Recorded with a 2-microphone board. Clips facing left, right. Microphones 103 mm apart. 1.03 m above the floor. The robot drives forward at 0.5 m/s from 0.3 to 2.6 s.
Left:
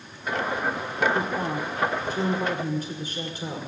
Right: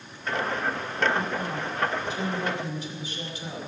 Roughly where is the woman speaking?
Left.